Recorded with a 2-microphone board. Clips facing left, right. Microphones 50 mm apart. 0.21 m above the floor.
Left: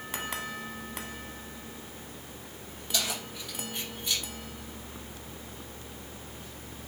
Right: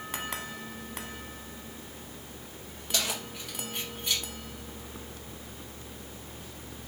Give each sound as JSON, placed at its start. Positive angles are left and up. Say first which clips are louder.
{"t": 2.9, "sound": "keys jangling", "louder": "right 1 dB", "side_deg": -75, "distance_m": 4.0}